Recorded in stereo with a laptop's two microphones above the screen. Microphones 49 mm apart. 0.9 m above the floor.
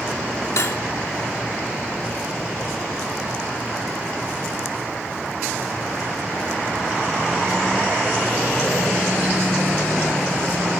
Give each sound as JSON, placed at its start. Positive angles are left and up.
{"t": 0.6, "sound": "cutlery clinking", "side_deg": 70, "distance_m": 0.9}